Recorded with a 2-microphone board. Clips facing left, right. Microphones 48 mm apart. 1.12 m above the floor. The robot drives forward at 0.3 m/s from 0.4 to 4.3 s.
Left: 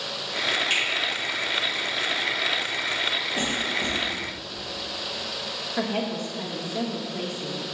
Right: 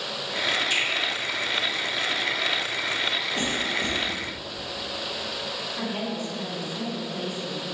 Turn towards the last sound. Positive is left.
turn(degrees=55)  # may be behind; listen again after turning